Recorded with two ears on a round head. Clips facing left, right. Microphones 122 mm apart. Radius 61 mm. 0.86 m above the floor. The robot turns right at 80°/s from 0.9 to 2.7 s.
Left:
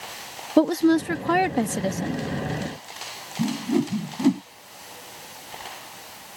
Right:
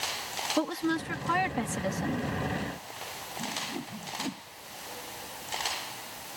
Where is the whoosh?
85° left.